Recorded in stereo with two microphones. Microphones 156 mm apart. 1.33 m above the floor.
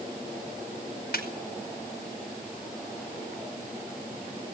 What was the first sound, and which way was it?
A snare drum, 85° left.